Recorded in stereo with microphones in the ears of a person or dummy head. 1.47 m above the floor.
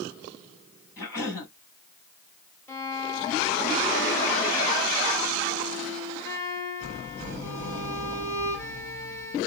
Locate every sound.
1.0 s a cough: 20° left (ahead or behind), 3.5 m
2.7 s a violin: 20° left (ahead or behind), 1.3 m